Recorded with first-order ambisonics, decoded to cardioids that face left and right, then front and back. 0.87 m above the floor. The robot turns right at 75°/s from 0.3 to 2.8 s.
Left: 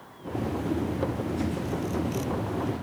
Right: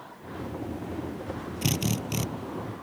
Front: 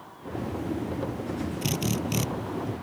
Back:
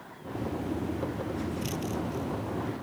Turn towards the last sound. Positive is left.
turn(degrees=20)